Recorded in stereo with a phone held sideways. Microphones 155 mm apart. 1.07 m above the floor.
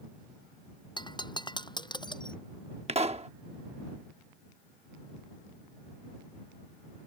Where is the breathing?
I don't hear breathing.